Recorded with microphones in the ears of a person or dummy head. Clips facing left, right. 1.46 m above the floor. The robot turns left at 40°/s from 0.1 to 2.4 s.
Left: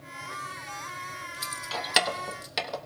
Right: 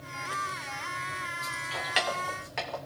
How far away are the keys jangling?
About 1.2 m.